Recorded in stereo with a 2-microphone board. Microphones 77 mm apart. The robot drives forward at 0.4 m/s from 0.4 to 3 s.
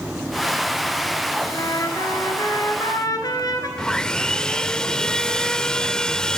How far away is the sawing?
About 0.7 m.